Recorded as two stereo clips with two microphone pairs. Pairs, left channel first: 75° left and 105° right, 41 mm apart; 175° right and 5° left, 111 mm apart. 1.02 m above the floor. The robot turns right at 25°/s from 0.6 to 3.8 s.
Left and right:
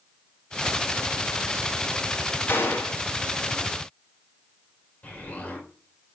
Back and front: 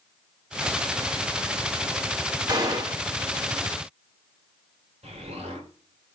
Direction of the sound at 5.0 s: 20° left.